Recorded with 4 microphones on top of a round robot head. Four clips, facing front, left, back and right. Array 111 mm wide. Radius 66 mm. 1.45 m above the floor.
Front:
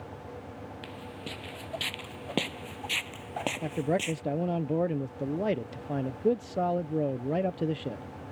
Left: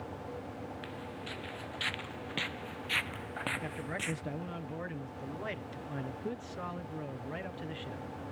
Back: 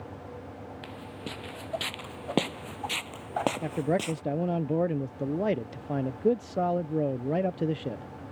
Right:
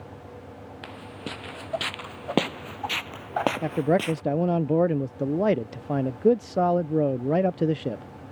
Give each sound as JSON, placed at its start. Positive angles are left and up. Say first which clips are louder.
{"t": 0.8, "sound": "footsteps", "louder": "right 4 dB, back 1 dB", "azimuth_deg": -100}
{"t": 3.6, "sound": "a man speaking", "louder": "right 16 dB, back 1 dB", "azimuth_deg": -95}